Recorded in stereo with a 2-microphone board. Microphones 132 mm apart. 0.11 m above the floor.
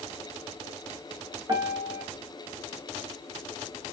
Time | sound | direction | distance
1.5 | a piano | 35° right (ahead or behind) | 0.7 m